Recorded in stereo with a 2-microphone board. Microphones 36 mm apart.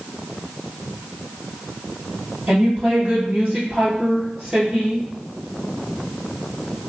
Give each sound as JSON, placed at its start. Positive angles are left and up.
{"t": 2.5, "sound": "a woman speaking", "side_deg": -50, "distance_m": 1.9}